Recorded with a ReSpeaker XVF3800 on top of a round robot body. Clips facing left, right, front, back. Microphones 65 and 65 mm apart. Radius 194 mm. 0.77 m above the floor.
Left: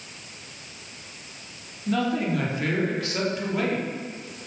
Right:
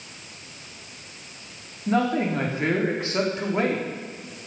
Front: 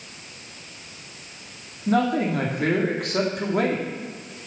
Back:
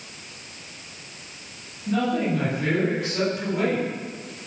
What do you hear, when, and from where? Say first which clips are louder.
1.9 s a man speaking: right 2 dB, front 2 dB; 30° right, 3 m